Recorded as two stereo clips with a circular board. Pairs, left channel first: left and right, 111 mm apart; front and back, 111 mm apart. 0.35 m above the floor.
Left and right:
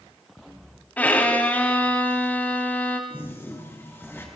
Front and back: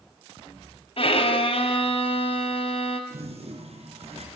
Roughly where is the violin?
Ahead.